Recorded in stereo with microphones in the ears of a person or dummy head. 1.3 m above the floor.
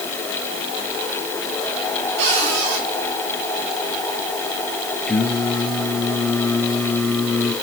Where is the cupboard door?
75° right (ahead or behind), 8.5 m.